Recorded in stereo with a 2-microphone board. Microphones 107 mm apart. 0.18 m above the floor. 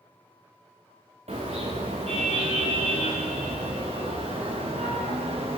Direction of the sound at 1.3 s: 85° right.